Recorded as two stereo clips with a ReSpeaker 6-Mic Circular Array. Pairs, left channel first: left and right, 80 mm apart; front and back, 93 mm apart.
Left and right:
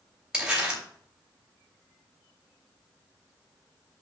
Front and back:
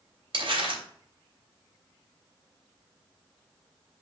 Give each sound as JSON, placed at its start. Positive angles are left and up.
{"t": 0.3, "sound": "crumpling", "azimuth_deg": -170, "distance_m": 3.5}